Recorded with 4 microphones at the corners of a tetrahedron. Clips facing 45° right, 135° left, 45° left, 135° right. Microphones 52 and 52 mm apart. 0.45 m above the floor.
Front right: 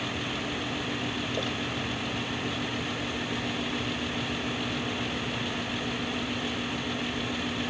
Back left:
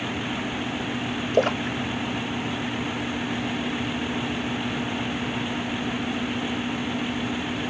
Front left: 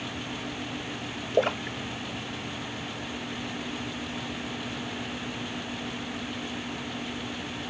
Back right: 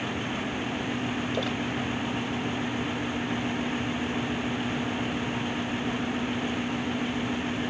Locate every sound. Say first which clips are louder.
1.3 s a splash: back left 9 dB, front left 3 dB; 95° left